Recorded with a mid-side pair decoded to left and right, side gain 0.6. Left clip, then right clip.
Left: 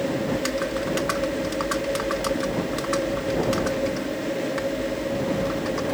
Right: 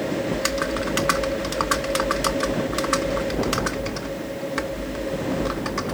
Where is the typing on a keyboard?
30° right.